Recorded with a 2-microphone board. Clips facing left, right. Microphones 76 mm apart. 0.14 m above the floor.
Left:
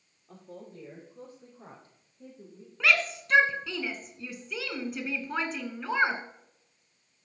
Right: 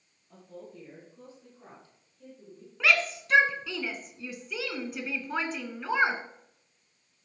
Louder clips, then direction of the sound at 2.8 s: Even; centre (ahead or behind).